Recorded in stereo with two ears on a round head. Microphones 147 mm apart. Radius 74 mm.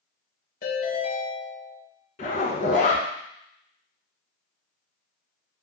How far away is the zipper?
About 1.1 m.